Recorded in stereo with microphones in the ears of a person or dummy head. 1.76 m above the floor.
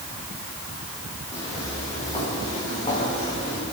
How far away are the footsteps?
About 5 m.